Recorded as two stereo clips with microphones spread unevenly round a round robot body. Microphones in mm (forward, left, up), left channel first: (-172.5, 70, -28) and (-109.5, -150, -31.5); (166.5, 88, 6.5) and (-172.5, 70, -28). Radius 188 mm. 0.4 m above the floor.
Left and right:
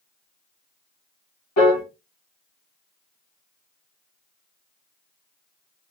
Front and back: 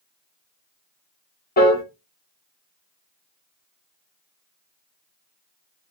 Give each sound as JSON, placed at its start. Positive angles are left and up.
{"t": 1.6, "sound": "a piano", "azimuth_deg": 70, "distance_m": 0.9}